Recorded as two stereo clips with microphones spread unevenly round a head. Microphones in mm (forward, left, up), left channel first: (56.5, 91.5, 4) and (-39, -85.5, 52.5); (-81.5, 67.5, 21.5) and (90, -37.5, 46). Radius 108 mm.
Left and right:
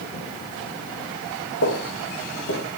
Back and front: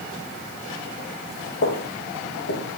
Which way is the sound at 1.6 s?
105° left.